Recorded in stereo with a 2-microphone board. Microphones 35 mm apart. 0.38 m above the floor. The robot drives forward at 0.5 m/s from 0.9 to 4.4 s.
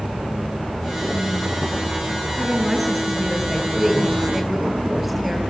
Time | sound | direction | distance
2.4 | a woman speaking | 10° right (ahead or behind) | 5.5 m